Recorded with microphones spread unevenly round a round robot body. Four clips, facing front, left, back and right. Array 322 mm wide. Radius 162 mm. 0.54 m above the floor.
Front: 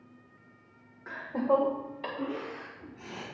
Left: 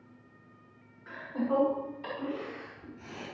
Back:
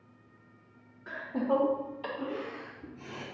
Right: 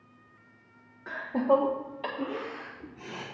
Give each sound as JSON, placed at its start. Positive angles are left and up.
{"t": 1.1, "sound": "laughter", "azimuth_deg": -55, "distance_m": 1.5}